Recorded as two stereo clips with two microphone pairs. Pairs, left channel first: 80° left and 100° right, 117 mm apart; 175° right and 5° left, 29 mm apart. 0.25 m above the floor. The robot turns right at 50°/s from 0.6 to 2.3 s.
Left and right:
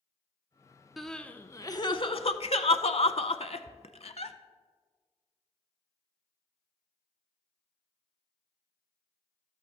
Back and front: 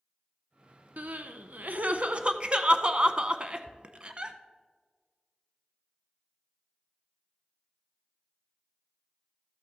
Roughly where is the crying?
Ahead.